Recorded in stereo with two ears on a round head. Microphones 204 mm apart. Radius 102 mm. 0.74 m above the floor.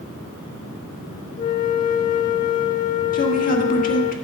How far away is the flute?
About 0.6 m.